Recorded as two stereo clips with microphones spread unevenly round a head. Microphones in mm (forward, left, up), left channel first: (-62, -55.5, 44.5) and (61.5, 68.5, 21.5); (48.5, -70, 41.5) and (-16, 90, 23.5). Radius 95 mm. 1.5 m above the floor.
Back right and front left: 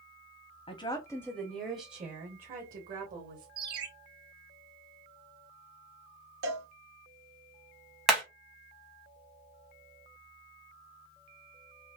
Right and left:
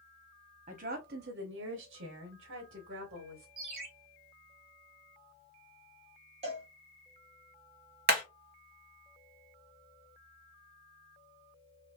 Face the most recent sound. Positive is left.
turn(degrees=140)